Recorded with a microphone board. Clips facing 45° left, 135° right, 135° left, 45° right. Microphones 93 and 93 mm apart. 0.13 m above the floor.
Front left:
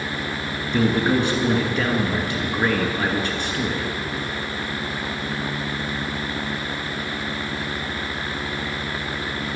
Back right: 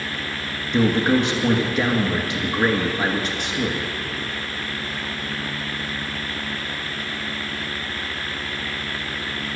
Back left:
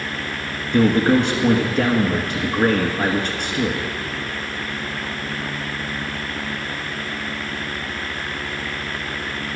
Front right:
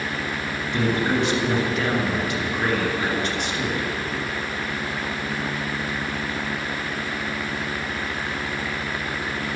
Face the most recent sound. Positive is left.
turn(degrees=150)